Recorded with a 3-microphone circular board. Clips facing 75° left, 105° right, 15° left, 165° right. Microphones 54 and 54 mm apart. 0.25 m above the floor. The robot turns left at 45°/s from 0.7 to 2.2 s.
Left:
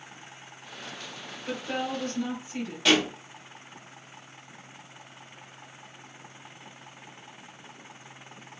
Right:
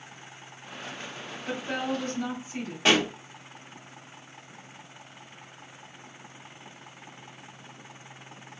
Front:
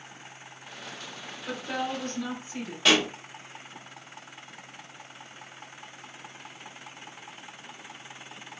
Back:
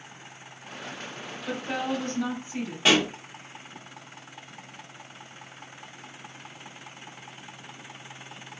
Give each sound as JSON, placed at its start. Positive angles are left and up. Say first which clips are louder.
{"t": 1.5, "sound": "a woman speaking", "louder": "right 1 dB, back 2 dB", "azimuth_deg": -130, "distance_m": 1.8}
{"t": 2.9, "sound": "a pop", "louder": "even, back 1 dB", "azimuth_deg": -125, "distance_m": 1.3}